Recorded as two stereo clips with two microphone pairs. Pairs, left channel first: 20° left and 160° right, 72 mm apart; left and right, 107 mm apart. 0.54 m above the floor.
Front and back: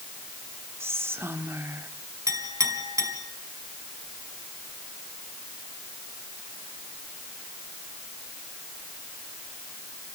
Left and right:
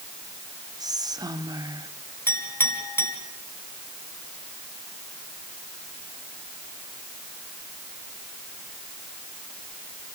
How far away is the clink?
About 3.5 m.